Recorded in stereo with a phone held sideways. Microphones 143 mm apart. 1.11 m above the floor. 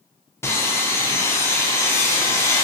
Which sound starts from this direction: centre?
Sawing, at 0.4 s.